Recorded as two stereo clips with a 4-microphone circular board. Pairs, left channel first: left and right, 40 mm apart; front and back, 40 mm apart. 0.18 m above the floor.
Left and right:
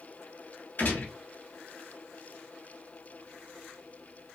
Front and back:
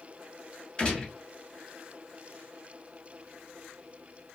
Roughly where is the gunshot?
Ahead left.